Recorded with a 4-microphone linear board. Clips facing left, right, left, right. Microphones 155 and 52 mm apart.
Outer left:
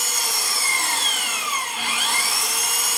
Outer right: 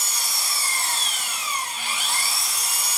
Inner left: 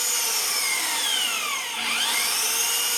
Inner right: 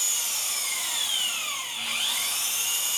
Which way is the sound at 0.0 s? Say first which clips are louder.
Outer left 4 dB, inner left 5 dB; 65° left (ahead or behind).